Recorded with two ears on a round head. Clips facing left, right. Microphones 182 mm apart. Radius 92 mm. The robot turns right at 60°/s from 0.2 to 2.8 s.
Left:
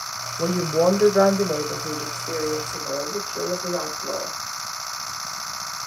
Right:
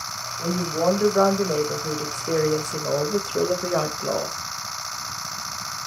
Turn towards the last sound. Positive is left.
turn(degrees=-105)